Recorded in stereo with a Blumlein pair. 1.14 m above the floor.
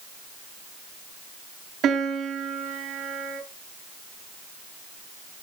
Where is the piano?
30° right, 3 m.